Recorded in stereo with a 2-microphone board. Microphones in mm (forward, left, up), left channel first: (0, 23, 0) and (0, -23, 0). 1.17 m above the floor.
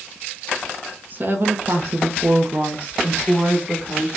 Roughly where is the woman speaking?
Right.